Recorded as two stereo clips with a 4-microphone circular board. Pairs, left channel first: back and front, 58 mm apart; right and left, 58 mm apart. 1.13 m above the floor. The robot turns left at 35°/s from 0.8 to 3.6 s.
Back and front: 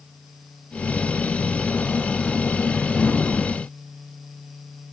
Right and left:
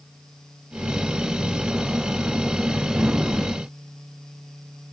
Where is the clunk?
No clunk in this recording.